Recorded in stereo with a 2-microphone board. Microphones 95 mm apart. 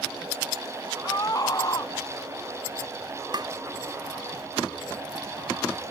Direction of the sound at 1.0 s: 40° left (ahead or behind).